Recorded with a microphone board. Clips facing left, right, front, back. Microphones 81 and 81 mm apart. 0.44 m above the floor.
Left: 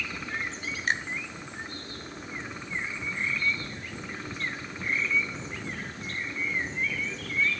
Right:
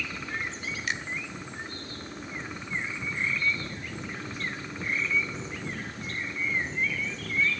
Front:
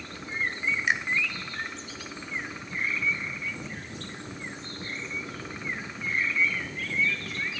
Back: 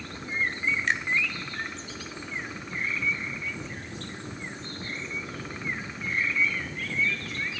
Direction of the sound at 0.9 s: 75° left.